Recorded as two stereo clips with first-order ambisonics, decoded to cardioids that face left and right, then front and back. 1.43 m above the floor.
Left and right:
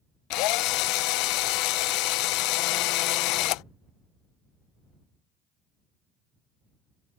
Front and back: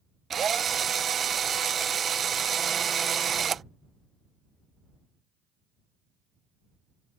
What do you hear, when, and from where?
0.3 s a drill: 115° left